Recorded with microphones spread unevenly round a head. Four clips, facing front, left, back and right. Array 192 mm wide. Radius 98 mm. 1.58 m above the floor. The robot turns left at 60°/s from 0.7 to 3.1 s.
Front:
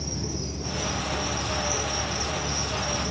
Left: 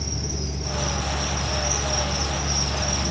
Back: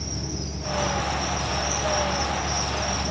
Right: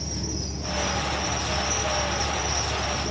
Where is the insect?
140° right, 3 m; by 3.1 s 80° left, 3 m.